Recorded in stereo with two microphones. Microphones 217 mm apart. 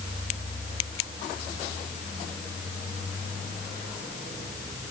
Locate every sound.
Only background noise.